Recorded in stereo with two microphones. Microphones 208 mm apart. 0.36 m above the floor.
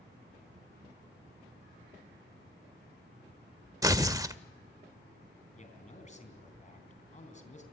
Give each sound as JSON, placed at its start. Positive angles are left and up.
{"t": 3.8, "sound": "tearing paper", "side_deg": -15, "distance_m": 0.5}
{"t": 5.5, "sound": "a man speaking", "side_deg": 35, "distance_m": 3.5}